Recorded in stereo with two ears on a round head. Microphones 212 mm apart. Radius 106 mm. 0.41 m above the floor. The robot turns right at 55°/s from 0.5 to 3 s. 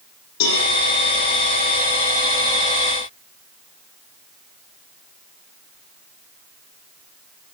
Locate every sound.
0.4 s a cowbell: 80° left, 10 m; by 0.6 s 85° left, 10 m